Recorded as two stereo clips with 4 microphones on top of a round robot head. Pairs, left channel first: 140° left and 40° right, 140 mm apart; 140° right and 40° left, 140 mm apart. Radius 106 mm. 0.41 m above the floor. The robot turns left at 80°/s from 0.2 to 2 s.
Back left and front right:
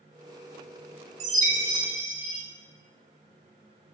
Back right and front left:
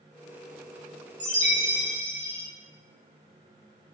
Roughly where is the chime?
Ahead.